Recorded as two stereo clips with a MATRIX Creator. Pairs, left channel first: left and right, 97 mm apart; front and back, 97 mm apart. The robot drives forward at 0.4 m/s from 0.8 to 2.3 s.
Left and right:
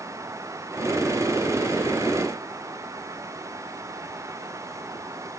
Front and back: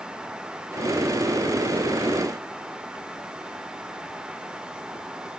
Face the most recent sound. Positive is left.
No sound to turn to.